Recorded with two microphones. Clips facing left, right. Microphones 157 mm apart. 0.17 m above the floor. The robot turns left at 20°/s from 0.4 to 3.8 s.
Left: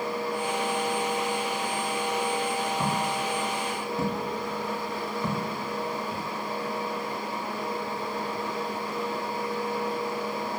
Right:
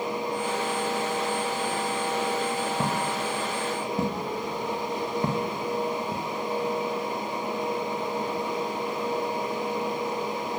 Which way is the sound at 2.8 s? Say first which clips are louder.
Even; 45° right (ahead or behind).